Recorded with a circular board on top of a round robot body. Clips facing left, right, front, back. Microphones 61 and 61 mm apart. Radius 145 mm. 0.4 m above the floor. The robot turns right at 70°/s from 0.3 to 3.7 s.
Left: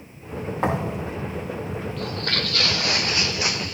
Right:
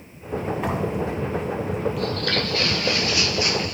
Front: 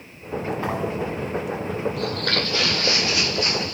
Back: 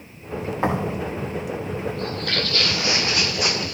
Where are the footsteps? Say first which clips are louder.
Right 3 dB, front 1 dB; 10° right, 0.8 m; by 3.8 s 175° right, 2.5 m.